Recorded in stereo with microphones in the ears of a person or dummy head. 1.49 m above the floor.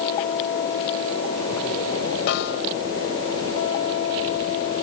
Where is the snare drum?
65° left (ahead or behind).